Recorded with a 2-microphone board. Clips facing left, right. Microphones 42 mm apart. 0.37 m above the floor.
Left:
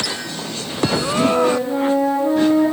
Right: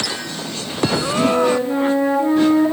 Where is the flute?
25° right (ahead or behind), 8 m.